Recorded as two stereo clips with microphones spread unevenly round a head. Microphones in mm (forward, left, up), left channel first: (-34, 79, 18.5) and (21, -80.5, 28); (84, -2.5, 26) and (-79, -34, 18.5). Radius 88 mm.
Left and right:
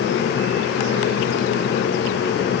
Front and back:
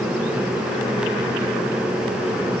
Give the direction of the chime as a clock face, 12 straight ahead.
I don't hear a chime.